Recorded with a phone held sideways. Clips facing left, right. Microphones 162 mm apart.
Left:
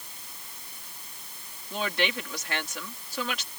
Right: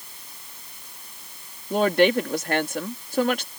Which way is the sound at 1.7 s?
50° right (ahead or behind).